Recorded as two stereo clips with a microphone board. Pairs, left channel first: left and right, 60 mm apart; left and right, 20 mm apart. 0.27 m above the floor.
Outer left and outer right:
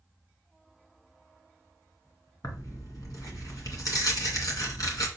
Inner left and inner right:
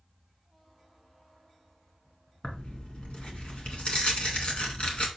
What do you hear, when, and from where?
2.4 s tearing paper: 70° left (ahead or behind), 1.8 m